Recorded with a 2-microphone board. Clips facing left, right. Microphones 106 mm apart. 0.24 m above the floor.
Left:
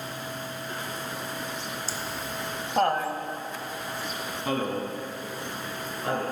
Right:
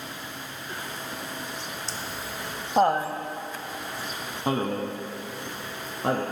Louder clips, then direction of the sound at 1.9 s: Left 1 dB; 5° left (ahead or behind).